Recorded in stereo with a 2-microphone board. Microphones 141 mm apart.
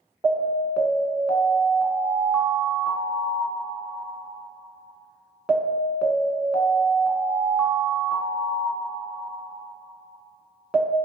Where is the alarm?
5° right (ahead or behind), 0.8 m.